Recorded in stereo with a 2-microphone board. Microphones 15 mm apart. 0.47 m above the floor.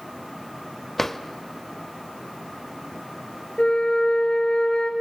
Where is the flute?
70° left (ahead or behind), 3 m.